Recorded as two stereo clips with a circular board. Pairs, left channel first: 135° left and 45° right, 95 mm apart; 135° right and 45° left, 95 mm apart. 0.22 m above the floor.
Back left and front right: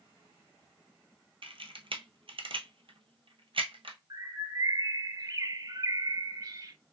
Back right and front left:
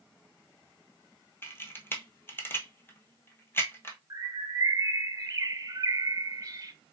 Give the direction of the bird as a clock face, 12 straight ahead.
12 o'clock.